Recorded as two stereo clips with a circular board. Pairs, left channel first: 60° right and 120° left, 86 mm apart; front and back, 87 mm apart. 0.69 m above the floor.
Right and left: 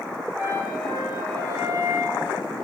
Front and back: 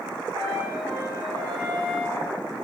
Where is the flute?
155° left, 2 m.